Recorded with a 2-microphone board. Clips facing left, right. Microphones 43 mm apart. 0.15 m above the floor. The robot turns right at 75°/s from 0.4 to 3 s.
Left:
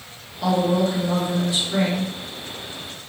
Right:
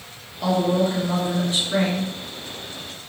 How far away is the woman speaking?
About 1.9 m.